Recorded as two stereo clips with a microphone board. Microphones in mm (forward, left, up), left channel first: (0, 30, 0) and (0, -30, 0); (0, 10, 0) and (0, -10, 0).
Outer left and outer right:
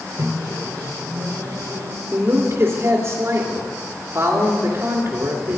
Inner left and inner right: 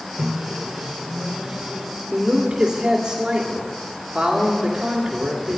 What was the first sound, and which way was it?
A microwave, 80° right.